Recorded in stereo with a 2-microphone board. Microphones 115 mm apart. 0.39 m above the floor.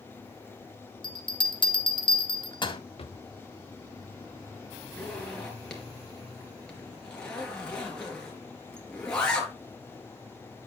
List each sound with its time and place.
1.0 s a bell: 45° left (ahead or behind), 2.0 m
3.0 s a drawer: 60° left (ahead or behind), 0.7 m
5.0 s a zipper: 10° left (ahead or behind), 4 m